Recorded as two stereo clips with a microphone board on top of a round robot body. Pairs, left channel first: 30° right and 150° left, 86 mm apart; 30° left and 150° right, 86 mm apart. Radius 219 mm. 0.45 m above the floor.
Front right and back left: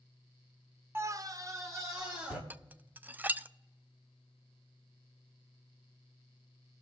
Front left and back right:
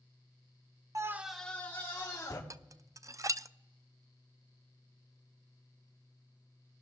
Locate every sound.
0.9 s a scream: 165° right, 0.8 m; by 2.4 s 90° left, 2 m
2.5 s dishes clattering: 155° right, 0.5 m